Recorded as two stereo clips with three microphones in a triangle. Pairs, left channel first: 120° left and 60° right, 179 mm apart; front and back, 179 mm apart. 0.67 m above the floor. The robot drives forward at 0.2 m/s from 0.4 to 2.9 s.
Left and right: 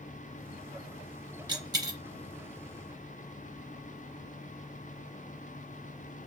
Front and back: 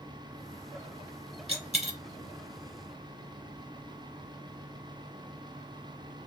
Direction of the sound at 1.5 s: 125° right.